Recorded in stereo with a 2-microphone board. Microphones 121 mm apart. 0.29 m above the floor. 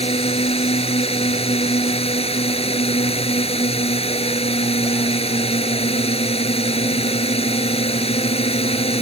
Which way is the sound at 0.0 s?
55° left (ahead or behind).